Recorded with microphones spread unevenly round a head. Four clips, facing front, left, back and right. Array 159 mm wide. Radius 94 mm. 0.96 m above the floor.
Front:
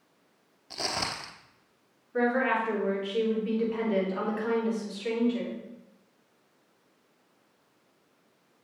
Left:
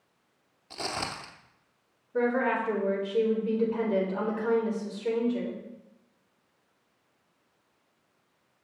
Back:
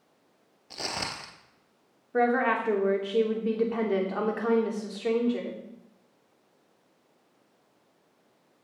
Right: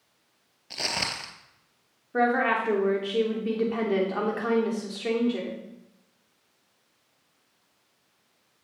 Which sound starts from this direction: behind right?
A woman speaking, at 2.1 s.